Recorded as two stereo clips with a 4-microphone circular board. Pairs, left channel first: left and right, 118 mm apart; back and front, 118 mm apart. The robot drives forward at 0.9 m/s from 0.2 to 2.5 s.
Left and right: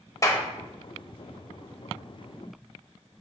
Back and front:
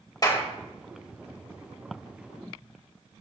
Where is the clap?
140° left, 1.3 m; by 0.4 s 145° left, 1.5 m.